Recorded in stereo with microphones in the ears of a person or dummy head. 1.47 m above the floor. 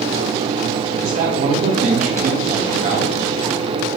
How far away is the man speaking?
About 0.9 m.